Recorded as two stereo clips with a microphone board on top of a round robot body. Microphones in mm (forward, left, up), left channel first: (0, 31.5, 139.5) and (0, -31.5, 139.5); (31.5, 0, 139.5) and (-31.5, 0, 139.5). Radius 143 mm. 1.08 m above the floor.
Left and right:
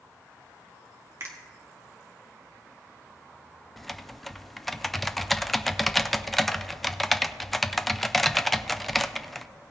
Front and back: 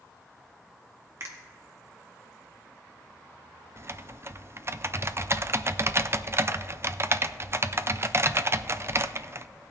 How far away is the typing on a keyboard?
About 0.5 m.